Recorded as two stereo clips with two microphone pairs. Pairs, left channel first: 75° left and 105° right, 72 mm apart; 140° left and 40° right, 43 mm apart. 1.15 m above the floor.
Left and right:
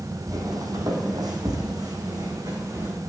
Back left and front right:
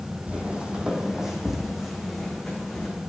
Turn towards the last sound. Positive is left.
turn(degrees=-135)